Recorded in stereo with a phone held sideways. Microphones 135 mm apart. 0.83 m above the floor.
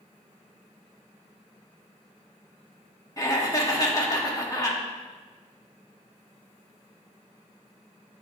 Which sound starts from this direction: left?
Laughter, at 3.2 s.